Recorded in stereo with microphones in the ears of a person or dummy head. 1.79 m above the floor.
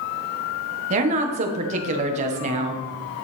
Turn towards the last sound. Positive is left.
turn(degrees=-40)  # may be behind; listen again after turning